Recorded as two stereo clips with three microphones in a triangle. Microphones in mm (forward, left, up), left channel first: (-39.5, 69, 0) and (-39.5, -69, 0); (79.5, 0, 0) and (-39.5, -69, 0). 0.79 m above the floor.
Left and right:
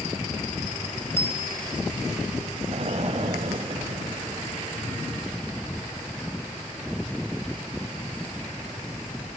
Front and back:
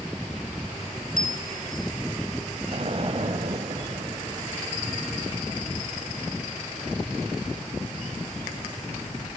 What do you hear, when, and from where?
1.2 s a bicycle bell: 15° left, 3 m
2.7 s an explosion: 115° right, 0.9 m